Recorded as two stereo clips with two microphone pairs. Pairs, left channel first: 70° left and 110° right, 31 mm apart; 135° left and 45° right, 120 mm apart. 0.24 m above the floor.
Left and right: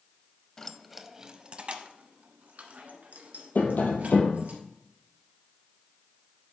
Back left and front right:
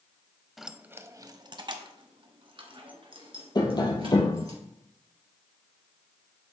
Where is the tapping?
80° left, 1.9 m.